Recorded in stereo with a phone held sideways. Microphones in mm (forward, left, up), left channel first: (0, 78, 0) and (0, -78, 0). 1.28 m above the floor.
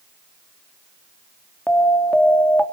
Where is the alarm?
5° left (ahead or behind), 2.5 m.